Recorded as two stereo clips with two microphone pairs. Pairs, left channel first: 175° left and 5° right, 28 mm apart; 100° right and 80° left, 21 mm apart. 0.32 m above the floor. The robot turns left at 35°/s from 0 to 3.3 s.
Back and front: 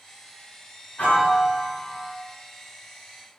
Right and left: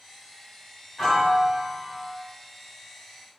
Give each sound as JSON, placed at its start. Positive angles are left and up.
{"t": 1.0, "sound": "a piano", "azimuth_deg": 165, "distance_m": 2.5}